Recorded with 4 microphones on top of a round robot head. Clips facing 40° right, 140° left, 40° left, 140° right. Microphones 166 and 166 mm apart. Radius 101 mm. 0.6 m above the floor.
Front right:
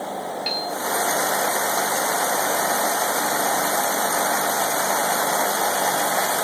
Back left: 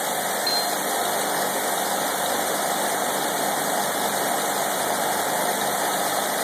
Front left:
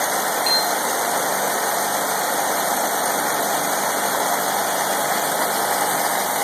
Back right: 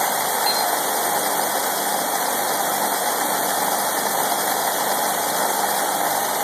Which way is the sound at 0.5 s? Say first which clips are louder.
Back left 2 dB, back right 1 dB; 35° right.